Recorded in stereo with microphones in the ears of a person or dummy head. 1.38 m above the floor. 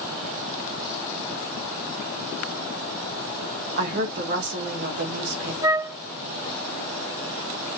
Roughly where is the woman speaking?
Right.